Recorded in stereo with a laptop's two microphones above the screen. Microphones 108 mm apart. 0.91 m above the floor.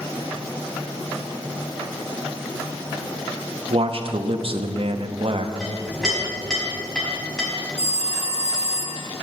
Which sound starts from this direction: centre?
A clink, at 5.6 s.